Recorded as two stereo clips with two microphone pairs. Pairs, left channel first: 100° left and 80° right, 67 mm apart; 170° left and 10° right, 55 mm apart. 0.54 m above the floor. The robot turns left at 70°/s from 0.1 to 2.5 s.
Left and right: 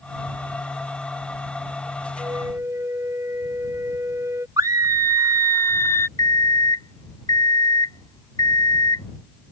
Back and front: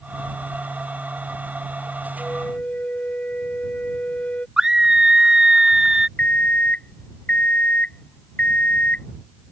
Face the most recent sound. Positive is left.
turn(degrees=105)